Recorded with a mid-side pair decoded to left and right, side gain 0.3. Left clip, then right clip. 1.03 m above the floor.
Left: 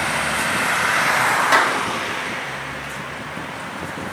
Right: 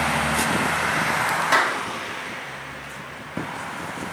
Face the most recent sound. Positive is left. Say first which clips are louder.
# left 2 dB
turn(degrees=25)